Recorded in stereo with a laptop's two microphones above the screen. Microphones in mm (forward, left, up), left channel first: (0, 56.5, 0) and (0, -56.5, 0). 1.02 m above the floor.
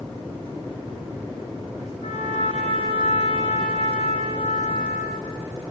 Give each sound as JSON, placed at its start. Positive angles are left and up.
{"t": 2.0, "sound": "a trumpet", "side_deg": 65, "distance_m": 5.5}